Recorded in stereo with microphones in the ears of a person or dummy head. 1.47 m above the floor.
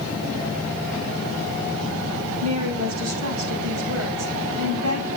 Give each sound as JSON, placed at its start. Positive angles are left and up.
{"t": 2.4, "sound": "a woman speaking", "side_deg": -90, "distance_m": 5.5}